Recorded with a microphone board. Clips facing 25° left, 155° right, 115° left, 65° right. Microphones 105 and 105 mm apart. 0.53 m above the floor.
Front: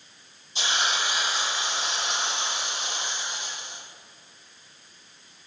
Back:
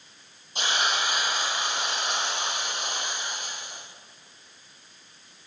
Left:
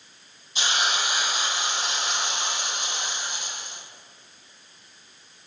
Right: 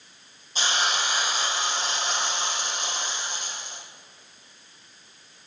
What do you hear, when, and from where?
0.6 s a hiss: 120° right, 4.5 m